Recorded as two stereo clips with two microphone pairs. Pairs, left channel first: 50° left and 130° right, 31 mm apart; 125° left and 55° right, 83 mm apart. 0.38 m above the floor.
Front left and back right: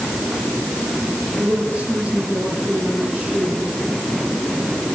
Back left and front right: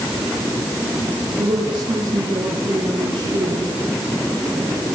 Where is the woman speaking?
75° right, 10 m.